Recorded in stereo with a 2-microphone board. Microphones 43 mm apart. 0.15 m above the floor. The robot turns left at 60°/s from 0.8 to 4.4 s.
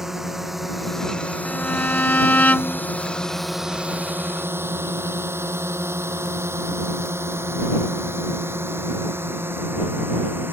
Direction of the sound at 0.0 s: 10° right (ahead or behind).